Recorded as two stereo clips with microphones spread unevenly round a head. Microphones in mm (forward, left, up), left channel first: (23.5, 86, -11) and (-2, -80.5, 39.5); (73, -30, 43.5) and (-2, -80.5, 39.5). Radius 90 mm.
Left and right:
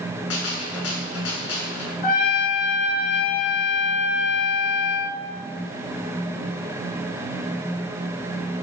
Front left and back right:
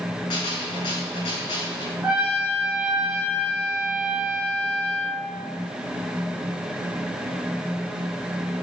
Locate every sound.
0.3 s a gunshot: 85° left, 6.5 m
2.0 s a trumpet: 135° left, 2.5 m